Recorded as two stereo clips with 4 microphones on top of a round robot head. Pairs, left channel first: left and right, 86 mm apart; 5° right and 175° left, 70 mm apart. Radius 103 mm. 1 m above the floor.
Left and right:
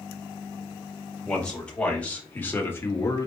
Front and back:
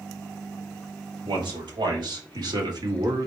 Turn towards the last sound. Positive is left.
turn(degrees=140)